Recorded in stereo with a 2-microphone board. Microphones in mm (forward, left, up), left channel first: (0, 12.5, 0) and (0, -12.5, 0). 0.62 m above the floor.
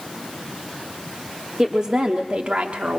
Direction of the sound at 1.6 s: 25° right (ahead or behind).